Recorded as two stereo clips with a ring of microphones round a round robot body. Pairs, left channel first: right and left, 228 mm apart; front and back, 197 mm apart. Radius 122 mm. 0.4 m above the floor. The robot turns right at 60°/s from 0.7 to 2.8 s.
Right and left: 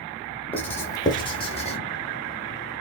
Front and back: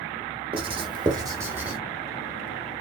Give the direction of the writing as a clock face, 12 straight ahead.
5 o'clock.